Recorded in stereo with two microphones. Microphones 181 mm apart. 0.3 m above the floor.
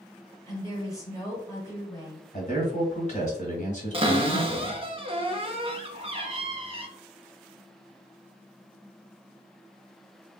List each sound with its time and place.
0.5 s a woman speaking: 20° left (ahead or behind), 1.1 m
2.3 s a man speaking: 40° left (ahead or behind), 1.3 m
3.9 s a cupboard door: 35° right (ahead or behind), 0.5 m